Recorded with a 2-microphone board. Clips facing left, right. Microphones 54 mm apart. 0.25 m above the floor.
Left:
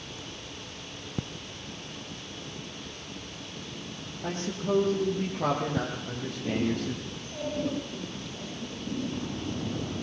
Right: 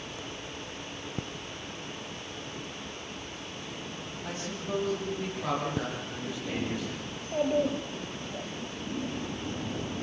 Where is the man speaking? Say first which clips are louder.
Left 7 dB; 45° left (ahead or behind), 8.5 m; by 7.0 s 60° left (ahead or behind), 9.5 m.